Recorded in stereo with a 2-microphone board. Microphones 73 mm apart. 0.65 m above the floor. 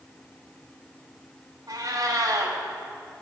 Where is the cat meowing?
60° right (ahead or behind), 1.7 m.